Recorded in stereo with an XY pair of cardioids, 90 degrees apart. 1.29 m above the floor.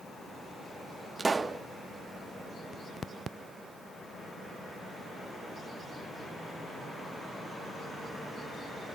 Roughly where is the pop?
Ahead right.